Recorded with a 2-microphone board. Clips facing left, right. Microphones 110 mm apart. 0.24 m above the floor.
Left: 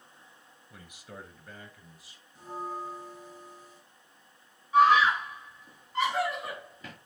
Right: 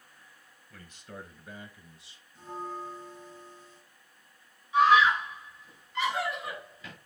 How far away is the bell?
About 2.5 m.